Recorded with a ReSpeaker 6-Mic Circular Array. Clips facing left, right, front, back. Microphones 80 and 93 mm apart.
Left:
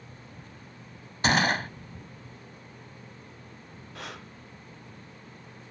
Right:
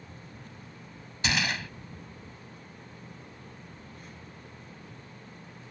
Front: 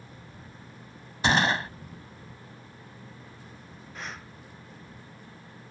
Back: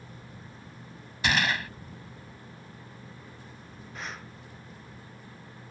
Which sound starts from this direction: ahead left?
A gunshot, at 1.2 s.